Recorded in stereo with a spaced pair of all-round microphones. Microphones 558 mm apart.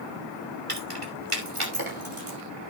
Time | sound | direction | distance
0.7 | keys jangling | 75° right (ahead or behind) | 2.5 m